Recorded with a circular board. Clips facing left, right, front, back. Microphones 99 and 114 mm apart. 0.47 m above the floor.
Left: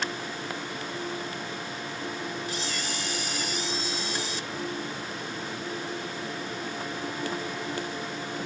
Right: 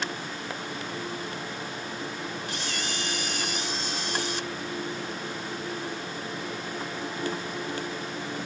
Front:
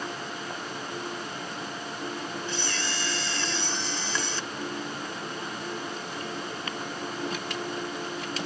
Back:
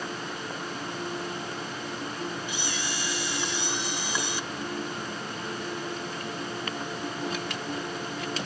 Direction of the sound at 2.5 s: 105° right.